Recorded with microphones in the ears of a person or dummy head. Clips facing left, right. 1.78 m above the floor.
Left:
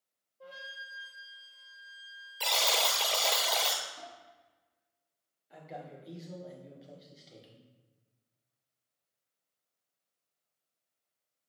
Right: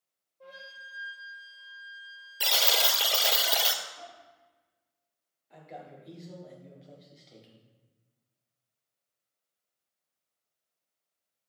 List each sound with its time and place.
0.4 s a flute: 5° left (ahead or behind), 1.3 m
2.4 s a buzzer: 15° right (ahead or behind), 0.5 m
4.0 s dishes clattering: 40° left (ahead or behind), 3 m
5.5 s a man speaking: 5° left (ahead or behind), 1.7 m